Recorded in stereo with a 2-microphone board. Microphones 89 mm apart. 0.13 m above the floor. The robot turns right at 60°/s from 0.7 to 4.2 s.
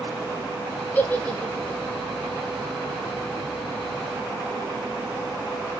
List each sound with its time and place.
0.9 s a giggle: 20° left (ahead or behind), 0.6 m; by 1.8 s 15° left (ahead or behind), 0.6 m